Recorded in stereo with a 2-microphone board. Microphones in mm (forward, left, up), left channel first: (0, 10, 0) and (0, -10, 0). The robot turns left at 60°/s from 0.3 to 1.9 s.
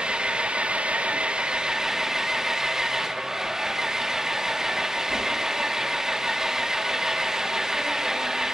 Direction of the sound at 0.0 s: 55° right.